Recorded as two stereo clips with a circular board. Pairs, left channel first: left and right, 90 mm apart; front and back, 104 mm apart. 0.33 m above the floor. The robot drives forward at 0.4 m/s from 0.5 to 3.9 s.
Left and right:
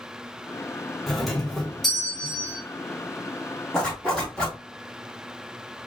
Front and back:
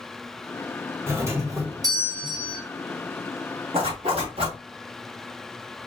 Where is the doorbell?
Straight behind, 1.6 m.